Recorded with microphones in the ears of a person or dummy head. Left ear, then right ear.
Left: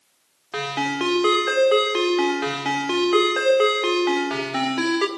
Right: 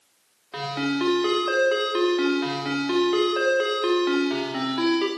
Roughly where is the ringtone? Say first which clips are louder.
Left 3 dB; centre.